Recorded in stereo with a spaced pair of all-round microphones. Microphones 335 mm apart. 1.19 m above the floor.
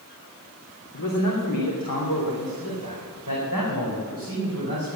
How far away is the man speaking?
About 2.5 m.